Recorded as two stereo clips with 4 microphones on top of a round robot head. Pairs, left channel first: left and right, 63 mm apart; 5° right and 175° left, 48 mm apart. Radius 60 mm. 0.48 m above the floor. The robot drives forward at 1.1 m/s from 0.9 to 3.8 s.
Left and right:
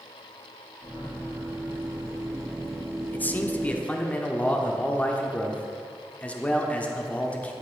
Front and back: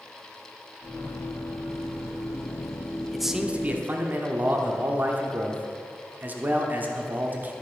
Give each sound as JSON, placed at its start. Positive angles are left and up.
{"t": 3.1, "sound": "a man speaking", "azimuth_deg": 75, "distance_m": 1.0}